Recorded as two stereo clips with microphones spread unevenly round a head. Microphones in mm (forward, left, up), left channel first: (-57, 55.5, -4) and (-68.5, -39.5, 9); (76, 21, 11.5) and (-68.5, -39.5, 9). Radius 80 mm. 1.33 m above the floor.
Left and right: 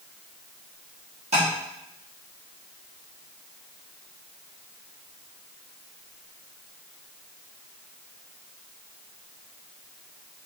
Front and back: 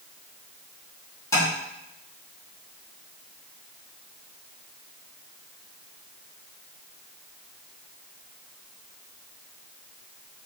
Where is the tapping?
50° right, 3.5 m.